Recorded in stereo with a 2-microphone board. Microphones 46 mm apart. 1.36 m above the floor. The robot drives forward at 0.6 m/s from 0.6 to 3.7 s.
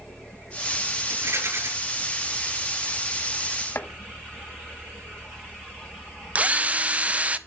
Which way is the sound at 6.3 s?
30° right (ahead or behind).